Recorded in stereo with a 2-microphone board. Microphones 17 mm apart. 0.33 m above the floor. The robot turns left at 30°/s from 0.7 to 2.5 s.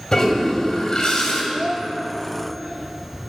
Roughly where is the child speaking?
Right.